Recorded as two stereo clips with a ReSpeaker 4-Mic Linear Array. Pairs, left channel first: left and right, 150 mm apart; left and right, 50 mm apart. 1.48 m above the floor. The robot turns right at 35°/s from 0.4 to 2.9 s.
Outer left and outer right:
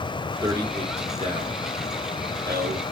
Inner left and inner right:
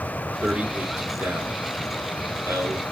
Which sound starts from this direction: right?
A man speaking, at 0.4 s.